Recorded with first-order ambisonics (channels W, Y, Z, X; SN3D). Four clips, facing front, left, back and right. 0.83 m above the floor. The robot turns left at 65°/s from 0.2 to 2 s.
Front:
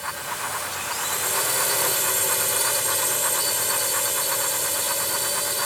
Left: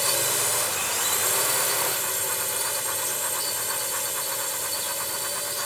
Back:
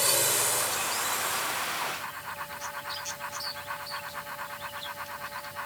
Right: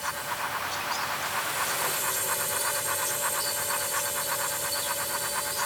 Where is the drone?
125° left; by 5.7 s 10° left.